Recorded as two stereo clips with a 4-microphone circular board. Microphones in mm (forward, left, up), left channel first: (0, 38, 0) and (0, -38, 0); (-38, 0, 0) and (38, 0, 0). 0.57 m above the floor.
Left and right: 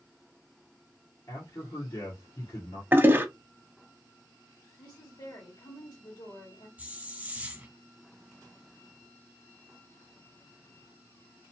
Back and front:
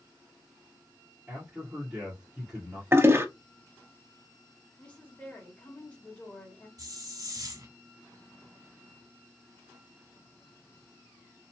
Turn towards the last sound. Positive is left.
turn(degrees=-20)